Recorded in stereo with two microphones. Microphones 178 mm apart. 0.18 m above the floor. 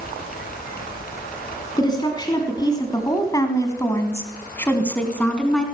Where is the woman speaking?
25° left (ahead or behind), 2 m; by 5.7 s 5° left (ahead or behind), 2 m.